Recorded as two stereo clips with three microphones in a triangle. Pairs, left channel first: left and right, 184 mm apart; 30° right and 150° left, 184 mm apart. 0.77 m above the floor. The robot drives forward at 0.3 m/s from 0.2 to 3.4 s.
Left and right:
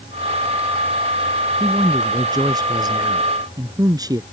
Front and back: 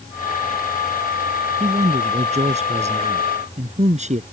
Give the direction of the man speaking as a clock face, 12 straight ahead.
5 o'clock.